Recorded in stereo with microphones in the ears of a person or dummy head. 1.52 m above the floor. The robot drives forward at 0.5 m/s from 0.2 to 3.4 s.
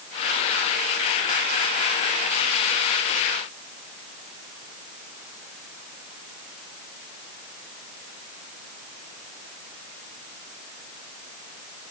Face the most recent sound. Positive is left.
No sound to turn to.